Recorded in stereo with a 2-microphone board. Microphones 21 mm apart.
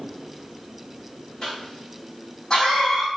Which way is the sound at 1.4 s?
30° left (ahead or behind).